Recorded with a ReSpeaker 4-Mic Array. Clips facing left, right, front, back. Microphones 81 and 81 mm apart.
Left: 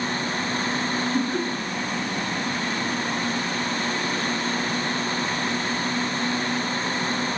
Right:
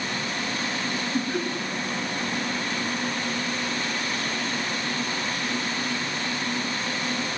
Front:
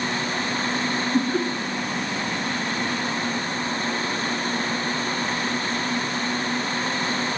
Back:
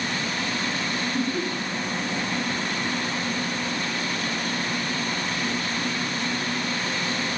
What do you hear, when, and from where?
1.1 s laughter: straight ahead, 2 m